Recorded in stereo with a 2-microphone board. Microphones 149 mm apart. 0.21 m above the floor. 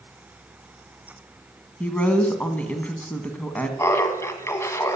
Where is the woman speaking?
10° left (ahead or behind), 1.4 m.